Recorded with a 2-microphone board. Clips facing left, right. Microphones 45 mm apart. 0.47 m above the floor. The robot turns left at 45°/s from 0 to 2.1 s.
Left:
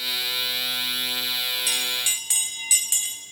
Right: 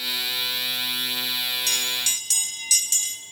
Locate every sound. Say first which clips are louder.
1.7 s a bell: even; 15° left (ahead or behind), 0.9 m; by 3.2 s 20° left (ahead or behind), 0.9 m